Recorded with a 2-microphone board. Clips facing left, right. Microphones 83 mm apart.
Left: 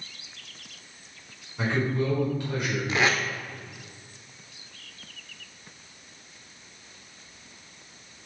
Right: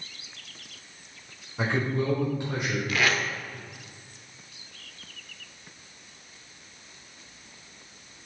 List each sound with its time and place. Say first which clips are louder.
1.6 s a man speaking: left 1 dB; 25° right (ahead or behind), 1.8 m
2.9 s tape being pulled: left 2 dB; 25° left (ahead or behind), 0.6 m